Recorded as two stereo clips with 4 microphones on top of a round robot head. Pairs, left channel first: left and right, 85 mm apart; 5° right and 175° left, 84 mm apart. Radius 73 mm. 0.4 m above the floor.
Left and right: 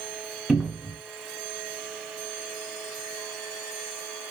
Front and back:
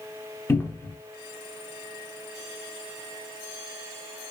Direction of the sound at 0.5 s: 10° right.